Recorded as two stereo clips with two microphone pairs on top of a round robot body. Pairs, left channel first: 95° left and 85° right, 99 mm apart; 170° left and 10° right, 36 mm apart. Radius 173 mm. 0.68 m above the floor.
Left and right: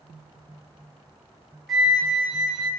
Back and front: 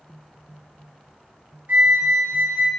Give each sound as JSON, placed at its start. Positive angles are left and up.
{"t": 1.7, "sound": "a flute", "azimuth_deg": 5, "distance_m": 1.5}